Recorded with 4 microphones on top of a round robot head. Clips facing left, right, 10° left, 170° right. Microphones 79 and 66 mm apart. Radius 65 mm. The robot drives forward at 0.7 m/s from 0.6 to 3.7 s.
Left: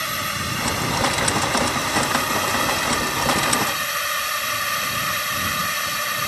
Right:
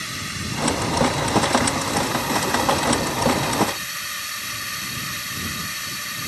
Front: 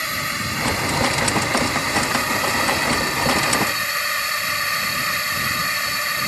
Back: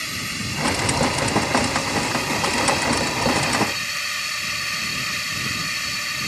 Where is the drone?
55° left; by 6.3 s 60° left.